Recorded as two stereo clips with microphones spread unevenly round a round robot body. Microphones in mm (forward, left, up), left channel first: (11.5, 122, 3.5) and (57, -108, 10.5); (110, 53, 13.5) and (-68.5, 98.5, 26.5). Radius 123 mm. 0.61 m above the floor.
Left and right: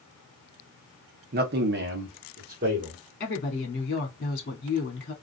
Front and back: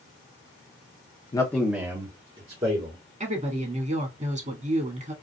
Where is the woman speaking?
130° left, 1.5 m.